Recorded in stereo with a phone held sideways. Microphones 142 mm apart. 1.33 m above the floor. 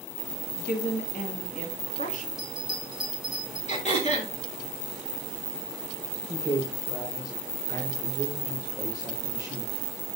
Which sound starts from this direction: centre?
A bell, at 2.4 s.